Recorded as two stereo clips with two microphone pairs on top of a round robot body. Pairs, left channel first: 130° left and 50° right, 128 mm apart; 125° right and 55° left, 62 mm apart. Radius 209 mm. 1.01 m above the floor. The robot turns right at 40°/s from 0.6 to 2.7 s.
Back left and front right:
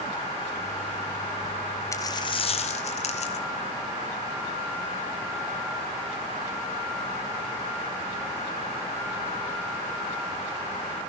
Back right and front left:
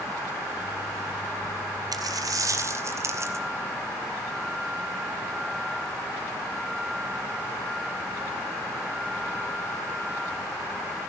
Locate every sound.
1.9 s a dropped coin: 65° left, 2.0 m; by 3.5 s 95° left, 2.0 m